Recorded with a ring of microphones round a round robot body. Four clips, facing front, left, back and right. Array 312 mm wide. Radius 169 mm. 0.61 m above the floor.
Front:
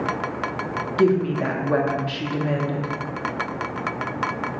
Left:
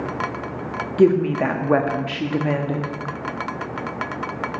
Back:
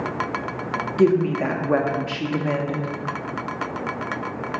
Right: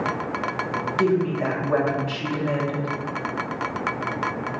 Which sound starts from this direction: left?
A woman speaking, at 1.0 s.